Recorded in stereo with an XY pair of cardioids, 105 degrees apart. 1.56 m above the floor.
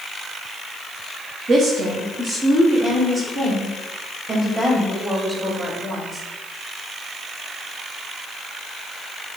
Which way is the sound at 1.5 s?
45° right.